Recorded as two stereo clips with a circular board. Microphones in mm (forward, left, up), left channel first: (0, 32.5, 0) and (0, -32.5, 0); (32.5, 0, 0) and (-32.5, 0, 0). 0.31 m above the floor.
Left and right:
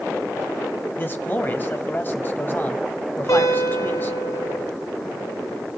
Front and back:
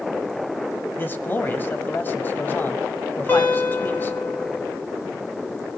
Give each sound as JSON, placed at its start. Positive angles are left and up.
{"t": 1.0, "sound": "a man speaking", "azimuth_deg": 45, "distance_m": 1.8}
{"t": 3.3, "sound": "a guitar", "azimuth_deg": 60, "distance_m": 5.5}